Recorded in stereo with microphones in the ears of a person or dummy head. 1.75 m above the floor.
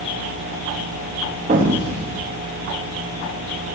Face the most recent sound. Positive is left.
turn(degrees=-40)  # may be behind; listen again after turning